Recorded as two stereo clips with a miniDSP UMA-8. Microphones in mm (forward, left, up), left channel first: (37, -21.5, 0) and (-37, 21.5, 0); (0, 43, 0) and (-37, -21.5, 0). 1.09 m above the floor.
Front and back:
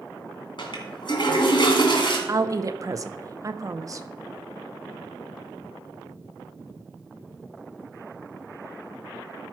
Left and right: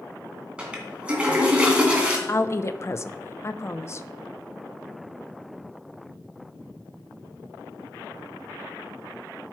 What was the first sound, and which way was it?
A toilet flushing, 45° right.